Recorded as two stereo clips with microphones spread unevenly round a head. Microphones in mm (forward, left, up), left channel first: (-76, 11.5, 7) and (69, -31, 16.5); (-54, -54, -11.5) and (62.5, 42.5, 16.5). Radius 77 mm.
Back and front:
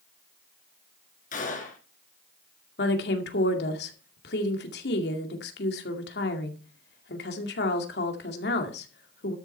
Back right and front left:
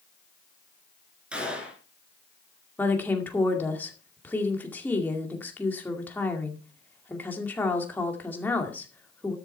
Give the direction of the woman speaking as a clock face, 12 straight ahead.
7 o'clock.